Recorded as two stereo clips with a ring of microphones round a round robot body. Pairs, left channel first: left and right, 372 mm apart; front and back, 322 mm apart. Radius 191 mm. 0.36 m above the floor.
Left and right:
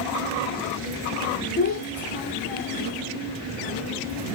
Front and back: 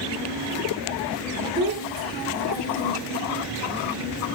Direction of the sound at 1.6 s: 150° left.